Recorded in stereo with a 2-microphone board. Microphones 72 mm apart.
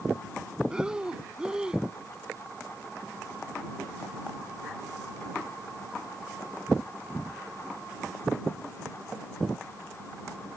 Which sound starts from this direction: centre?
Breathing, at 0.7 s.